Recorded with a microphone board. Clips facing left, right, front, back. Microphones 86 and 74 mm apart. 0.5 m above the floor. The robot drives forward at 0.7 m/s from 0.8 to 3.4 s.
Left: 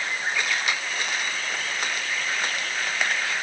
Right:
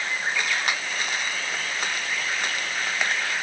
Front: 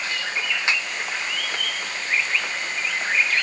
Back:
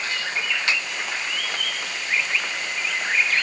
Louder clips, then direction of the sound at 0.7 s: Right 1 dB, front 1 dB; 60° right.